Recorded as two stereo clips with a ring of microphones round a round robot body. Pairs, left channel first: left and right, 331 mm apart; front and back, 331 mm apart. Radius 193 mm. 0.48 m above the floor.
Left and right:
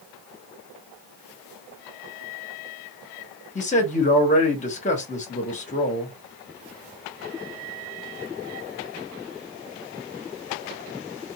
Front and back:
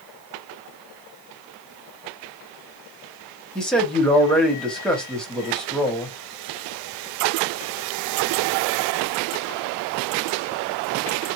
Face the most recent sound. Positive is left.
turn(degrees=85)